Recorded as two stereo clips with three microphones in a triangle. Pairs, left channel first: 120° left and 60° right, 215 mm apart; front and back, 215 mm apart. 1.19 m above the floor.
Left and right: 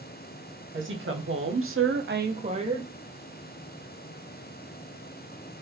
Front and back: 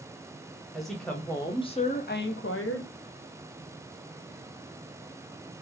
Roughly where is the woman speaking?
Right.